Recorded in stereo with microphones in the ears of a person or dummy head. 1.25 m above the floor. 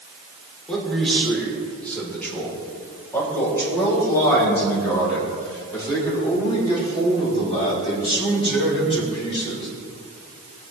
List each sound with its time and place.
0.7 s a man speaking: centre (ahead or behind), 4.5 m; by 9.7 s 30° left (ahead or behind), 8.5 m